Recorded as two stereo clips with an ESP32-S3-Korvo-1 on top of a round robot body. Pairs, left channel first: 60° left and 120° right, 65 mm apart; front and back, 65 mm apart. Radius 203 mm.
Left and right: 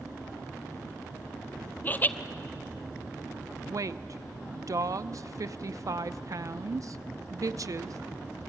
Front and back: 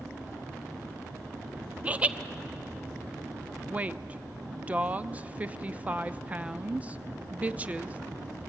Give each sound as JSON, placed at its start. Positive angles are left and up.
{"t": 1.8, "sound": "laughter", "azimuth_deg": 120, "distance_m": 1.1}
{"t": 3.7, "sound": "a woman speaking", "azimuth_deg": -115, "distance_m": 0.9}